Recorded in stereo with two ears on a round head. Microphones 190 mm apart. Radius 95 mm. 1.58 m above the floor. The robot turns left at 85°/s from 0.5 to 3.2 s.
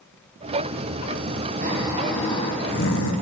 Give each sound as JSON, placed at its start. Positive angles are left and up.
{"t": 1.6, "sound": "snoring", "azimuth_deg": -140, "distance_m": 1.5}